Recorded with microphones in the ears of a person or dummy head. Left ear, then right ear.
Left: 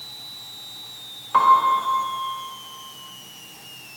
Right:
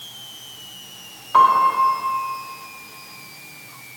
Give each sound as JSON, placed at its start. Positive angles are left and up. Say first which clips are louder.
{"t": 1.3, "sound": "a piano", "louder": "right 2 dB", "side_deg": 10, "distance_m": 1.4}